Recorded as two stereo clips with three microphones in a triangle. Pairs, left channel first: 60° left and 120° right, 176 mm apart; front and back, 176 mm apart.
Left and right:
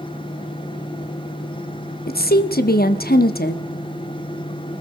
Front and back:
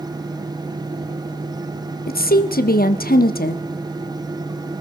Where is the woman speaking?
30° left, 1.1 m.